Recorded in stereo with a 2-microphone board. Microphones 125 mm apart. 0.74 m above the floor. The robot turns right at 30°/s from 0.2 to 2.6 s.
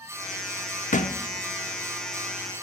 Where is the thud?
85° left, 0.7 m.